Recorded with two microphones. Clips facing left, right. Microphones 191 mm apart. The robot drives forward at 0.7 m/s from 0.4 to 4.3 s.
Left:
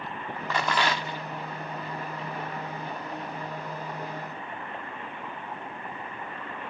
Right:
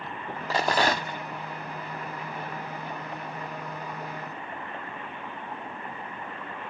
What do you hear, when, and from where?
0.5 s a rattle: 30° right (ahead or behind); by 1.2 s 50° right (ahead or behind)